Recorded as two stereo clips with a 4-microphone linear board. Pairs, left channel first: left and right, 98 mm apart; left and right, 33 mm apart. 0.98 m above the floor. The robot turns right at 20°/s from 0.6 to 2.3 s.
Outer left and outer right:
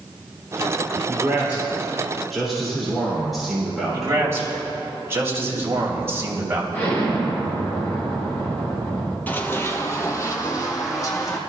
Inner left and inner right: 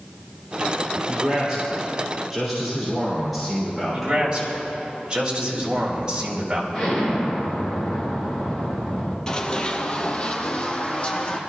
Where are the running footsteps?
20° left (ahead or behind), 1.0 m; by 11.4 s 35° left (ahead or behind), 2.0 m.